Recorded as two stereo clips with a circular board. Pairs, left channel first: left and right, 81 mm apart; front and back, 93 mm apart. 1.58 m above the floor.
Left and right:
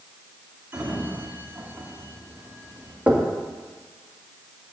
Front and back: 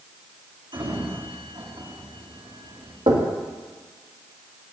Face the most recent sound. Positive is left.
turn(degrees=-165)